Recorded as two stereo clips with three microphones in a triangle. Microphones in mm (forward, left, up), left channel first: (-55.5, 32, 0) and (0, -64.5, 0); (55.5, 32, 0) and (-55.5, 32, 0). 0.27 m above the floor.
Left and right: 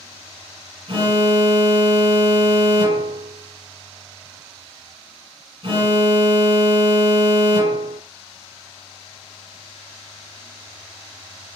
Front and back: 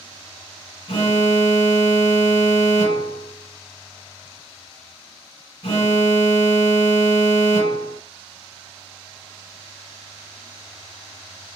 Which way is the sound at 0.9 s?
25° right.